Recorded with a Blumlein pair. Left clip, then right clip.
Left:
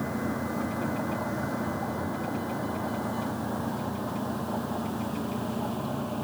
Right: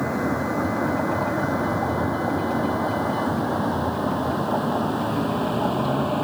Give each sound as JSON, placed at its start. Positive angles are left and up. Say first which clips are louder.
{"t": 0.0, "sound": "a vehicle", "louder": "right 8 dB", "azimuth_deg": -25}